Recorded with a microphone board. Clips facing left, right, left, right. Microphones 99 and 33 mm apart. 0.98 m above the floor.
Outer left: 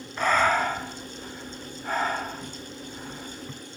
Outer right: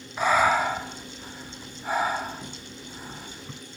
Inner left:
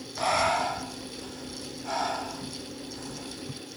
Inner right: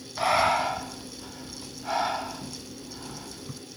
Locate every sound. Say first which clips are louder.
0.2 s breathing: outer right 1 dB, inner right 2 dB; 10° right (ahead or behind), 1.6 m